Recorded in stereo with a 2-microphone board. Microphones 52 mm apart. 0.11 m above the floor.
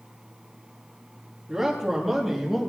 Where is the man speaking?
10° right (ahead or behind), 3.5 m; by 2.7 s centre (ahead or behind), 3.5 m.